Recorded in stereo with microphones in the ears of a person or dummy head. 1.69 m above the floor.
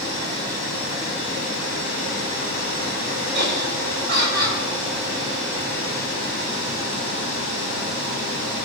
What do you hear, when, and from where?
3.3 s laughter: 55° right (ahead or behind), 5 m